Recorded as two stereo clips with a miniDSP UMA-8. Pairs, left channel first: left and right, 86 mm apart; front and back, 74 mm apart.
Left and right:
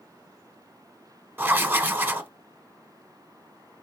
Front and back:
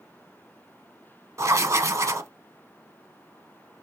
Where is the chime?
No chime in this recording.